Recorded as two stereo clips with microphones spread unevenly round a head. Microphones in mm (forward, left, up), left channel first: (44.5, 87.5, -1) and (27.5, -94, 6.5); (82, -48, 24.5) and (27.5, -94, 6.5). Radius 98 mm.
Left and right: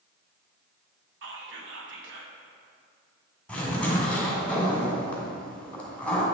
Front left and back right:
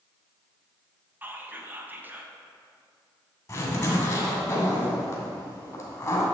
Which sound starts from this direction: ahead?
A zipper, at 3.5 s.